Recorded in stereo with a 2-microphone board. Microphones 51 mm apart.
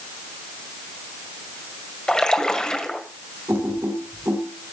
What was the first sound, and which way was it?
A splash, 15° left (ahead or behind).